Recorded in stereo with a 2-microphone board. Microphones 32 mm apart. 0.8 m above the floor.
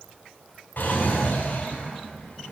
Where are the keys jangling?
No keys jangling in this recording.